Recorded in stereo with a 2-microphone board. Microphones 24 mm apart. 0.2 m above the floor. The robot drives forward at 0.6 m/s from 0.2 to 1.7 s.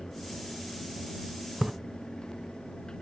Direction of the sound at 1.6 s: 35° right (ahead or behind).